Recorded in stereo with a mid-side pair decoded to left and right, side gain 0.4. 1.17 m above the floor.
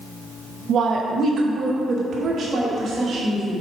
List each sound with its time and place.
0.7 s a woman speaking: 60° right, 0.8 m; by 3.6 s 55° right, 2.5 m